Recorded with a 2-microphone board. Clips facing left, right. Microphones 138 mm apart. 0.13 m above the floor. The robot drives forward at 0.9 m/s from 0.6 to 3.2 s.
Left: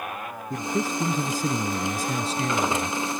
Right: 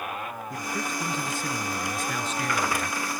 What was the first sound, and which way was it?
A man speaking, 35° left (ahead or behind).